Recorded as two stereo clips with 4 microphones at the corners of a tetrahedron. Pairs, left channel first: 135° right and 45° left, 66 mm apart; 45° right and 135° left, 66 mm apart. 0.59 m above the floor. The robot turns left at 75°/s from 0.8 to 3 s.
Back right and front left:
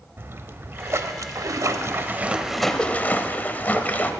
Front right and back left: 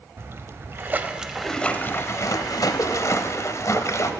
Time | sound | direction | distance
0.2 | a splash | 90° left | 0.5 m